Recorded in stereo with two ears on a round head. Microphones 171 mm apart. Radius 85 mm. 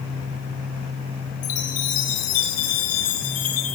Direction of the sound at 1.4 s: 45° left (ahead or behind).